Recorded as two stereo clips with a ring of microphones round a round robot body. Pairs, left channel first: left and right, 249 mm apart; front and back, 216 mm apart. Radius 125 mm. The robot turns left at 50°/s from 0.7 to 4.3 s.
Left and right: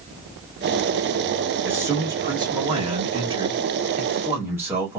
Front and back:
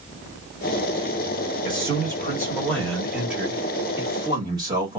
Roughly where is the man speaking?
Ahead.